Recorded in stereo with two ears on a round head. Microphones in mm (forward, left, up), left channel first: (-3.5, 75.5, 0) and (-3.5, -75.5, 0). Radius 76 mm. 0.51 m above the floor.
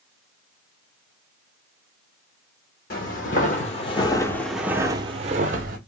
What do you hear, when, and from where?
2.9 s footsteps: 55° left (ahead or behind), 1.0 m; by 5.8 s 55° right (ahead or behind), 0.8 m